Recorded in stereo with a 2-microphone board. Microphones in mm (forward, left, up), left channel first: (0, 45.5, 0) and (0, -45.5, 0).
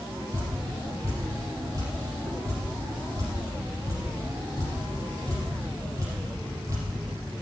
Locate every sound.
0.3 s dripping: 35° right (ahead or behind), 4.5 m